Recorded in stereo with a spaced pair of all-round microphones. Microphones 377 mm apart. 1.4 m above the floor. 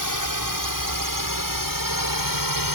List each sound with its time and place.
0.0 s a drone: 55° right (ahead or behind); by 2.8 s 60° right (ahead or behind)